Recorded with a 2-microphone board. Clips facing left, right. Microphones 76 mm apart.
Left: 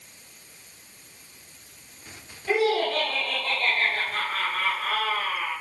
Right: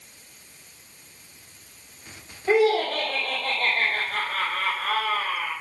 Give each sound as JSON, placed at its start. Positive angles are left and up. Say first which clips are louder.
{"t": 2.5, "sound": "laughter", "louder": "right 3 dB", "side_deg": -35, "distance_m": 3.0}